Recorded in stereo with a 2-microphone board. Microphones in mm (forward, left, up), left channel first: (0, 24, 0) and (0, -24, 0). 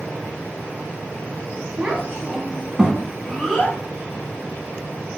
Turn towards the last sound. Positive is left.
turn(degrees=5)  # may be behind; listen again after turning